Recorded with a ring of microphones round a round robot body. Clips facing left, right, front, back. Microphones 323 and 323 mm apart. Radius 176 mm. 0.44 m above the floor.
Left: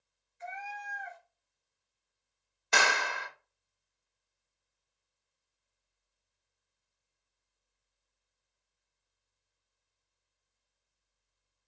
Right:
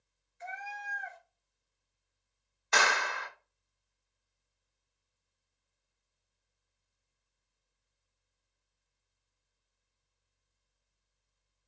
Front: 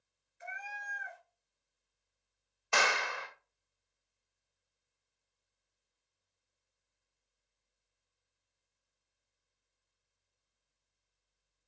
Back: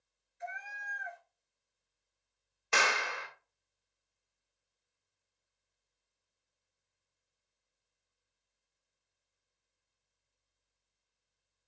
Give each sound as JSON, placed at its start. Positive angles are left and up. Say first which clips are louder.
{"t": 0.4, "sound": "a cat meowing", "louder": "left 1 dB, back 3 dB", "azimuth_deg": -85, "distance_m": 1.4}
{"t": 2.7, "sound": "a clap", "louder": "even, even", "azimuth_deg": 125, "distance_m": 0.7}